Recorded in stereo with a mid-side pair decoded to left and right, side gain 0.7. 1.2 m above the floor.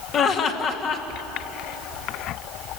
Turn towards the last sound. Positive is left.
turn(degrees=45)